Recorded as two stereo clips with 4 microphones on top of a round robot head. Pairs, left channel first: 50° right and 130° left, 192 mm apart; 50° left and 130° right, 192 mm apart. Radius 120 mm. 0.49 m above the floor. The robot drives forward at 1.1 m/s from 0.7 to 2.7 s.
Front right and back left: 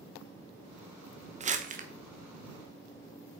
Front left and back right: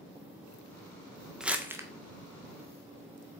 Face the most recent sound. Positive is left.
turn(degrees=170)